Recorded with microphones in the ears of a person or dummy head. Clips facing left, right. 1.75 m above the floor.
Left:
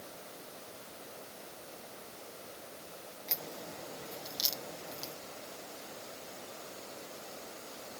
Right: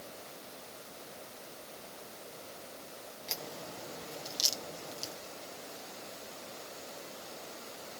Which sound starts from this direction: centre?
A crack, at 3.3 s.